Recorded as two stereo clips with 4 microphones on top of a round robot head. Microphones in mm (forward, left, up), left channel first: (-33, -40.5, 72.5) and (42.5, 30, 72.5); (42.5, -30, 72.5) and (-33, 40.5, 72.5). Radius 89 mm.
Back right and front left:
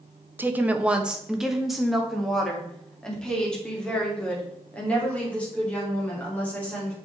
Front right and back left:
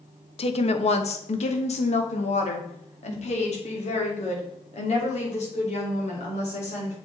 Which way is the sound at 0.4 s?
25° right.